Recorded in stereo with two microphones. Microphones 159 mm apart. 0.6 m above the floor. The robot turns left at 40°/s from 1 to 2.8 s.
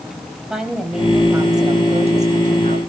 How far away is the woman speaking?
About 4 m.